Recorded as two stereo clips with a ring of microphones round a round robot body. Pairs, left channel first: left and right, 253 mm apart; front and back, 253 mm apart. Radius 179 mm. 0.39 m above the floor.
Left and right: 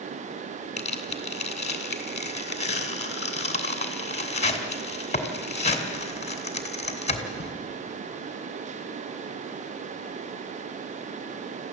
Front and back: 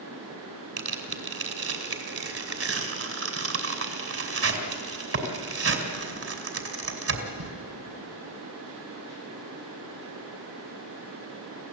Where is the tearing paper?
155° left, 3 m.